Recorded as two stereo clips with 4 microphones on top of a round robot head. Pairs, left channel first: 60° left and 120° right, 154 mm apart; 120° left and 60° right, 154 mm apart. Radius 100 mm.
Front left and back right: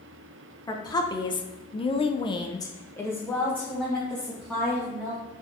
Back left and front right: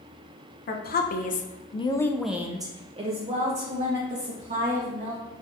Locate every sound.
0.7 s a woman speaking: 125° left, 0.9 m; by 5.2 s 30° right, 1.8 m